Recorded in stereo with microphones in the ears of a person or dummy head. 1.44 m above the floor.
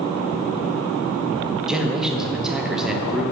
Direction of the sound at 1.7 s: 5° right (ahead or behind).